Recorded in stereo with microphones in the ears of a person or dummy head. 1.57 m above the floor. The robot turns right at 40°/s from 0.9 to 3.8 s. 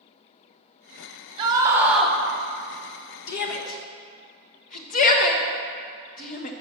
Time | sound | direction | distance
1.4 | a scream | 20° right | 1.1 m
3.3 | a shout | 50° left (ahead or behind) | 0.8 m